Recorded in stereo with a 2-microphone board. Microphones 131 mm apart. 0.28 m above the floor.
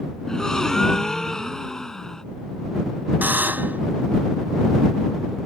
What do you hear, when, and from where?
0.3 s a gasp: 5° left (ahead or behind)
3.2 s a buzzer: 15° right (ahead or behind)